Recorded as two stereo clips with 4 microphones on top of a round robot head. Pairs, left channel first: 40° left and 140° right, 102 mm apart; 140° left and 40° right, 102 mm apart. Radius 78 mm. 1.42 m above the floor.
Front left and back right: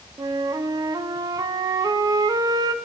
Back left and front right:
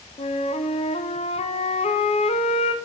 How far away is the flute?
About 0.6 m.